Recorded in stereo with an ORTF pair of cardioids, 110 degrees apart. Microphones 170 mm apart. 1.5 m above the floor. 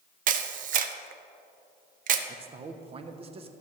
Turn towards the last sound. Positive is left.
turn(degrees=-35)